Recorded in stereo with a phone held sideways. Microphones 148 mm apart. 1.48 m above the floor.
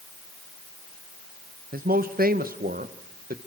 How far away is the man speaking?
About 1.4 m.